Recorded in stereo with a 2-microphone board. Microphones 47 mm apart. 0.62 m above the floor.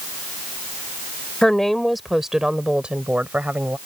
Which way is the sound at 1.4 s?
10° left (ahead or behind).